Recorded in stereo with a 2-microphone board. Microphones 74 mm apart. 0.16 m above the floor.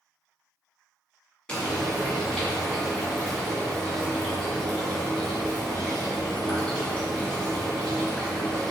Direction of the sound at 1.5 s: 15° left (ahead or behind).